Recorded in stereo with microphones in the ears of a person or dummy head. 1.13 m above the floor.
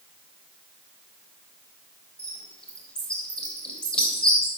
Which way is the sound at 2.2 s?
15° left (ahead or behind).